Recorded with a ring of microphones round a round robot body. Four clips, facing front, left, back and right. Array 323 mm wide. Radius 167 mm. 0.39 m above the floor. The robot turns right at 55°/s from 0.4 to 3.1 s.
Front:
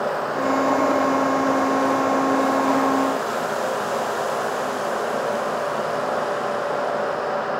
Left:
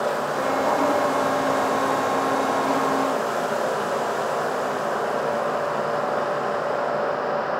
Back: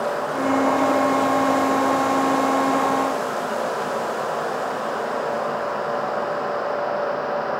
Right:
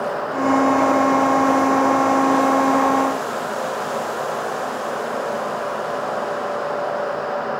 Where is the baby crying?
No baby crying in this recording.